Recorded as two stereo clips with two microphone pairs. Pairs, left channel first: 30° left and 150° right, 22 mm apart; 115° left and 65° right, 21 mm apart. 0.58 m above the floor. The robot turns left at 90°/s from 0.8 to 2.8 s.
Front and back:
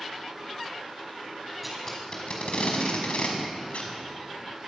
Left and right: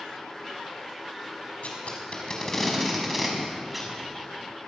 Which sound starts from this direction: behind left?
Tape being pulled, at 1.6 s.